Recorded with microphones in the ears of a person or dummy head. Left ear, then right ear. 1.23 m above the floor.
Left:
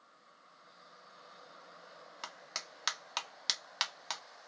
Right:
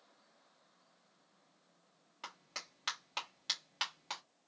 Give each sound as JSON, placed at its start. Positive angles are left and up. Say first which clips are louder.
{"t": 2.2, "sound": "a clap", "louder": "left 4 dB", "side_deg": 35, "distance_m": 1.6}